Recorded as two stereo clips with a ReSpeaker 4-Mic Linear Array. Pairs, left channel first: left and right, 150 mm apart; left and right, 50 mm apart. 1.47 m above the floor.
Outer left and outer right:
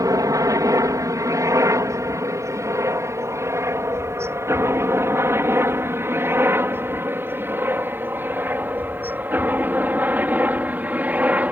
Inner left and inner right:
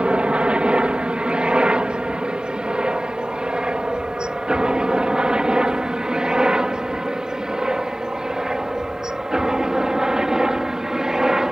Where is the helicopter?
25° right (ahead or behind); by 11.5 s 10° right (ahead or behind).